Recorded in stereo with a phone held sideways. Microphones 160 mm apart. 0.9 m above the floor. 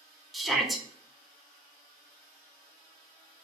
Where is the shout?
Centre (ahead or behind), 0.6 m.